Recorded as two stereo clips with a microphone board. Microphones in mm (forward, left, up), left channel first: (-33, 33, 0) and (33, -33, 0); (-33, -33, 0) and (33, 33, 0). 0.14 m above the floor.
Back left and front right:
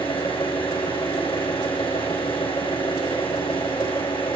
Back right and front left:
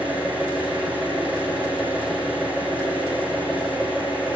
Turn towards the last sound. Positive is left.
turn(degrees=120)